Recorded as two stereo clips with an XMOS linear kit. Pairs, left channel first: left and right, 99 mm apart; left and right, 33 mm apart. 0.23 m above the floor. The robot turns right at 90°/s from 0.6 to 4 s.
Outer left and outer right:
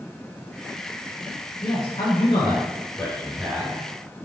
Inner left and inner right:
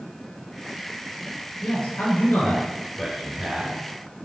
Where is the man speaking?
30° left, 4 m; by 3.8 s 135° right, 4 m.